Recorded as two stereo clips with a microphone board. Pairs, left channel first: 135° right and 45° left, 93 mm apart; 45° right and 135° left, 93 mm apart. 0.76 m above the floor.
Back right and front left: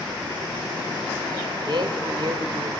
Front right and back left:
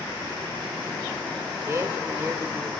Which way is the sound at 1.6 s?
75° left.